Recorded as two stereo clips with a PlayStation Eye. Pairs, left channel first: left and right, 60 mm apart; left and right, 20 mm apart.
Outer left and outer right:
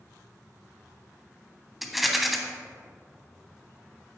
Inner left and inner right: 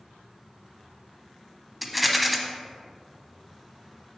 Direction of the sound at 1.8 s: Centre (ahead or behind).